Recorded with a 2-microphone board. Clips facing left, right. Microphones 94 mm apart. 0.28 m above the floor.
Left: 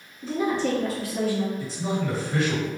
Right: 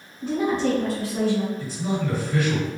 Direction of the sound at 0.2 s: 60° right (ahead or behind).